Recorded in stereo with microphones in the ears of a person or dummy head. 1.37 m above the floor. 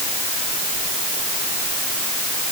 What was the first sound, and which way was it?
Only background noise.